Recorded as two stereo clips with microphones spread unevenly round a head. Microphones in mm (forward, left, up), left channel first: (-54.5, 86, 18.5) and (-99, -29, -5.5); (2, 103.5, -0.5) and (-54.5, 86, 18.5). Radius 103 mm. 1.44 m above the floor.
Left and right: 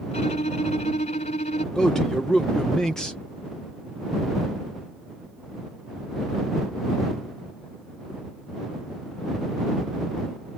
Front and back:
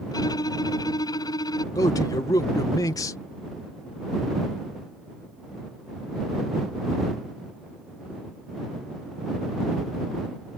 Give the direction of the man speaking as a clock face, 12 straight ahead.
1 o'clock.